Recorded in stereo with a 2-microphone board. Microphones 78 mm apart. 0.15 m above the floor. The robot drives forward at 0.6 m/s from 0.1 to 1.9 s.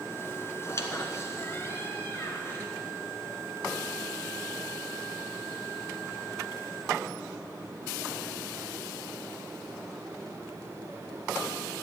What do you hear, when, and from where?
0.6 s a squeak: 40° left (ahead or behind), 1.4 m; by 2.7 s 30° left (ahead or behind), 1.7 m